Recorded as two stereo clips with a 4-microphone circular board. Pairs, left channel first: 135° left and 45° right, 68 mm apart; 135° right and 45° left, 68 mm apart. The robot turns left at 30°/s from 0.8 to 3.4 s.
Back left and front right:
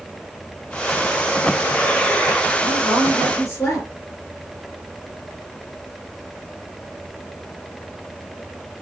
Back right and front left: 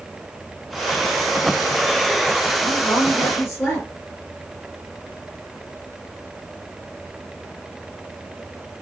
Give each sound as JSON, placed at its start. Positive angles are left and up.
{"t": 2.6, "sound": "a woman speaking", "azimuth_deg": 180, "distance_m": 1.9}